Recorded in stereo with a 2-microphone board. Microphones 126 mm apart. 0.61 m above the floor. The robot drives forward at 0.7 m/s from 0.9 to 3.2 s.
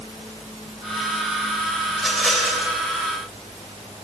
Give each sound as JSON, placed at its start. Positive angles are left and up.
{"t": 1.9, "sound": "a rattle", "side_deg": 0, "distance_m": 3.0}